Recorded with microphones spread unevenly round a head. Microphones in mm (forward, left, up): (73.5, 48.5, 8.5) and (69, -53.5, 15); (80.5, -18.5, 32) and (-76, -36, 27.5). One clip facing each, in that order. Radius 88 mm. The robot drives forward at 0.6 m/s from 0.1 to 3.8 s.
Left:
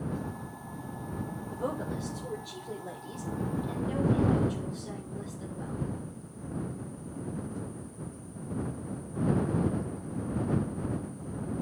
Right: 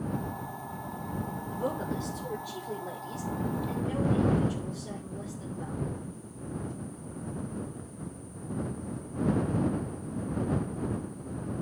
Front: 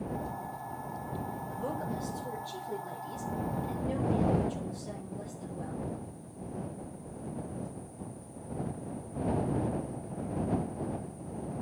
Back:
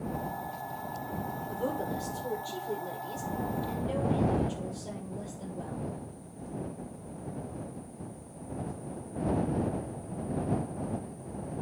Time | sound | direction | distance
1.5 | a woman speaking | straight behind | 6.5 m